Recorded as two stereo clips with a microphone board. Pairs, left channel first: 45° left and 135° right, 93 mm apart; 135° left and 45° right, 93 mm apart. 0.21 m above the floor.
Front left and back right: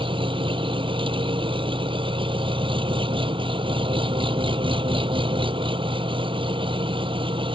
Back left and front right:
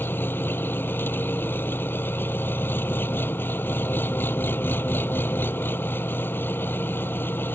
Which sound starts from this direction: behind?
An engine running, at 0.0 s.